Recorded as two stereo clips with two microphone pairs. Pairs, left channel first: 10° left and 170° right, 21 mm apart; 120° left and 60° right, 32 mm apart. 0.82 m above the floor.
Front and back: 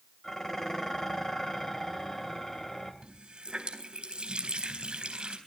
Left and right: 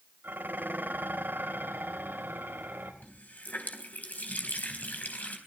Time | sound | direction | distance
0.2 | dishes clattering | 55° right | 3 m
3.0 | a running tap | 155° left | 3.5 m